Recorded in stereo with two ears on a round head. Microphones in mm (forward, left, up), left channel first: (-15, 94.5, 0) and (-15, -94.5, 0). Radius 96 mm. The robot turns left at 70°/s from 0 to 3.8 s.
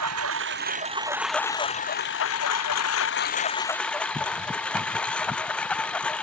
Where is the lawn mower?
90° right; by 6.2 s 5° left.